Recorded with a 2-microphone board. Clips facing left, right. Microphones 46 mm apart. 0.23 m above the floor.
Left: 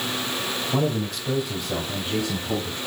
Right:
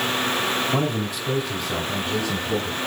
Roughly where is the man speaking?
Centre.